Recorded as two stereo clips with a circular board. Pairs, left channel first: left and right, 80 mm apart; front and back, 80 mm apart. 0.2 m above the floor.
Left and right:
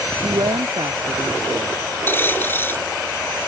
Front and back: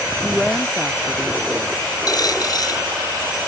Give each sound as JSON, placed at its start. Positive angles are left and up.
{"t": 0.2, "sound": "a woman speaking", "azimuth_deg": -90}
{"t": 2.1, "sound": "a dropped coin", "azimuth_deg": 30}